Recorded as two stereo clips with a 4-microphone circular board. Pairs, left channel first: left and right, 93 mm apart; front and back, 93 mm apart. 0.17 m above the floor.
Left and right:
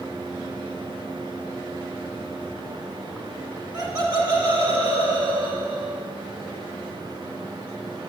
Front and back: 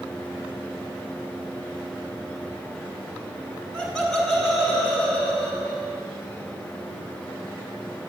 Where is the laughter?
80° right, 2 m; by 6.0 s 85° right, 3.5 m.